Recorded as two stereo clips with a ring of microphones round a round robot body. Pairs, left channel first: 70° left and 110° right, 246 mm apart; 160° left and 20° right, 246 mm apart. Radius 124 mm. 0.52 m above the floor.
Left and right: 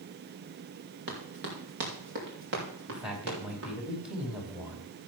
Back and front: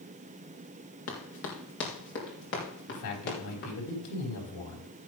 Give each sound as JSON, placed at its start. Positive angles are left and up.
{"t": 1.1, "sound": "running footsteps", "azimuth_deg": -165, "distance_m": 4.0}
{"t": 2.9, "sound": "a man speaking", "azimuth_deg": 160, "distance_m": 4.5}